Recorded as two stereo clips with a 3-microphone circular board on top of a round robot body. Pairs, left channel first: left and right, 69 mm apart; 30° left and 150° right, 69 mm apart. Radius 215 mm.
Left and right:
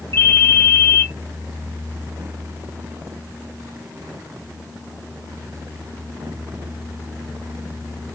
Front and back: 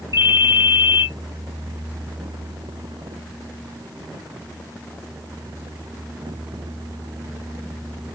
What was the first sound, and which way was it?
A ringtone, 120° right.